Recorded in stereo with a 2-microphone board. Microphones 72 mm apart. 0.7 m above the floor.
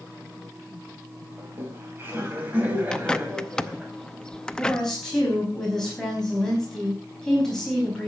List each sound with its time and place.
1.4 s laughter: 35° right (ahead or behind), 5 m; by 3.9 s 15° right (ahead or behind), 5 m
2.9 s a bird: 10° left (ahead or behind), 0.6 m
4.5 s a woman speaking: 5° left (ahead or behind), 5 m